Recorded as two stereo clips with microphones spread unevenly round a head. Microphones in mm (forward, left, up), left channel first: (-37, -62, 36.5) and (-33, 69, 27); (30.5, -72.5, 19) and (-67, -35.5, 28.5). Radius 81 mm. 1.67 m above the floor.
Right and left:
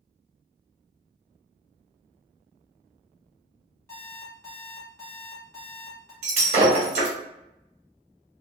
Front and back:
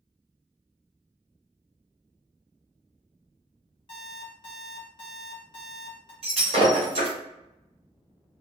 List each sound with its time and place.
3.9 s an alarm clock: 35° right, 1.5 m
6.2 s breaking glass: 120° left, 1.6 m